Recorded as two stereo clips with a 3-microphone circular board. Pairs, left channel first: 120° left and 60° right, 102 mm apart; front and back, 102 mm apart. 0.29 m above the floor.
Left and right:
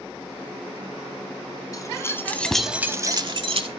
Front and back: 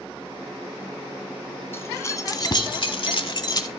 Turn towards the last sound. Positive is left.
turn(degrees=-50)